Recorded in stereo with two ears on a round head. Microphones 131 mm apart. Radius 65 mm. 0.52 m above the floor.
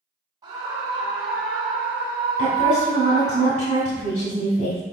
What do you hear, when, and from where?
0.4 s a scream: 20° right (ahead or behind), 2.5 m; by 3.4 s 30° left (ahead or behind), 4 m
2.4 s a woman speaking: 50° left (ahead or behind), 2 m